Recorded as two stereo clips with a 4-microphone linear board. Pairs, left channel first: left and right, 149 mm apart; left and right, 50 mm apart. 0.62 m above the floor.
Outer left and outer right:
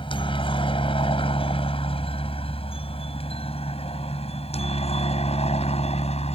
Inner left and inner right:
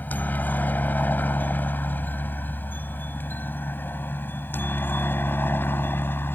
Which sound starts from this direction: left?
A helicopter, at 0.0 s.